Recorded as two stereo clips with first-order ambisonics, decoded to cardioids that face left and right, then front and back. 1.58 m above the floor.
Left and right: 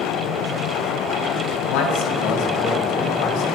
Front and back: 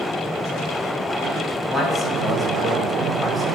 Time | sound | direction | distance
1.7 | a man speaking | 80° left | 2 m